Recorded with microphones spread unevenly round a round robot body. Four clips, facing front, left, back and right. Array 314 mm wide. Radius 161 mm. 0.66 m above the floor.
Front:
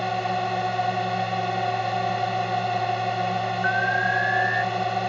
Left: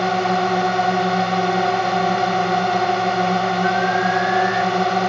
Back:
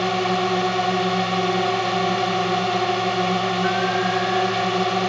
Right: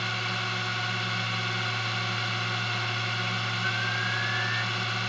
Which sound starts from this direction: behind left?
A drone, at 0.0 s.